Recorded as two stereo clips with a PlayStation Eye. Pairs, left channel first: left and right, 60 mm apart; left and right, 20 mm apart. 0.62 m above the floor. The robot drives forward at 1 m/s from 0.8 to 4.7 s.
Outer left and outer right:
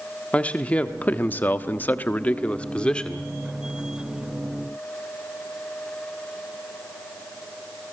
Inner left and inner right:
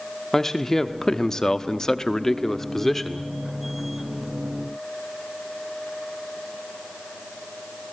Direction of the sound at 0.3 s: 25° left (ahead or behind).